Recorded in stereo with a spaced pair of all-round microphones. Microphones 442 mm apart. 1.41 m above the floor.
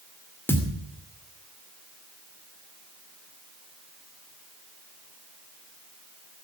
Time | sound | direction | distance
0.5 | a thud | 5° left (ahead or behind) | 2 m